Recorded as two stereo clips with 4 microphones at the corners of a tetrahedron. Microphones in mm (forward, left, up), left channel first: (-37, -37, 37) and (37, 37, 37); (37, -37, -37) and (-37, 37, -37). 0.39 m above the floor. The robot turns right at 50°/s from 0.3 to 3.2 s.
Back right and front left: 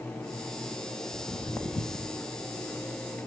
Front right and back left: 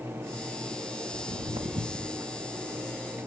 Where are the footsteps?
125° left, 1.7 m; by 2.2 s 165° right, 1.0 m.